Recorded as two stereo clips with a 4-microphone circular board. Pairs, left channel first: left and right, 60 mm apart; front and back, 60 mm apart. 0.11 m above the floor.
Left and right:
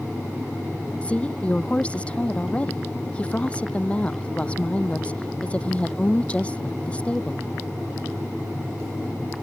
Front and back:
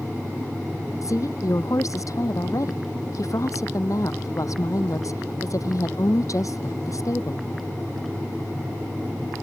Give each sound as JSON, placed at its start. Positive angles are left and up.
{"t": 1.0, "sound": "a woman speaking", "azimuth_deg": 20}